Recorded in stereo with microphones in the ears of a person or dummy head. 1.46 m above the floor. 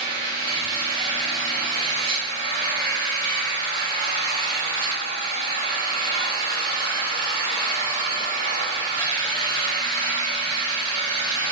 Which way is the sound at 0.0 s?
65° right (ahead or behind).